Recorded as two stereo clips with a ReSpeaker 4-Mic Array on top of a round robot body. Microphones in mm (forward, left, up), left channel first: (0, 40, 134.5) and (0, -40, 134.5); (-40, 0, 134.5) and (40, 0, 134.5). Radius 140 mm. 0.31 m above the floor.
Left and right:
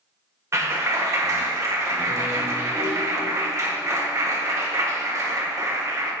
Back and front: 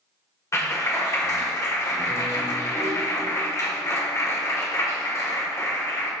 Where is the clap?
135° right, 1.9 m.